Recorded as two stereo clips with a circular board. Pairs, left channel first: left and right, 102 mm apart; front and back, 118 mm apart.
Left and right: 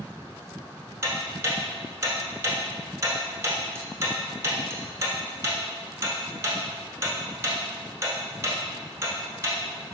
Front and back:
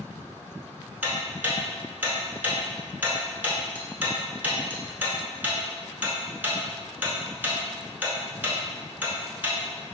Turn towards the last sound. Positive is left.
turn(degrees=-120)